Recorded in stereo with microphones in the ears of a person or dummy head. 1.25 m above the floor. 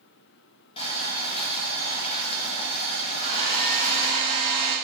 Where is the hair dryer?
20° left (ahead or behind), 1.1 m.